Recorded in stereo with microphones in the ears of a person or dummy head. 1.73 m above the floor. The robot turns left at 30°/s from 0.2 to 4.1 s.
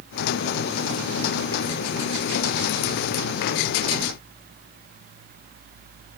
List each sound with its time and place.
Only background noise.